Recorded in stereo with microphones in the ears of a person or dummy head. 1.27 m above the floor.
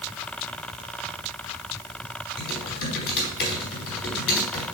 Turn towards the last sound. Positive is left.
turn(degrees=60)  # may be behind; listen again after turning